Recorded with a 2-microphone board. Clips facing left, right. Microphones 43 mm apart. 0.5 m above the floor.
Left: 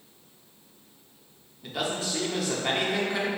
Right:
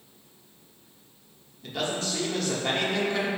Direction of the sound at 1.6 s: 10° left (ahead or behind).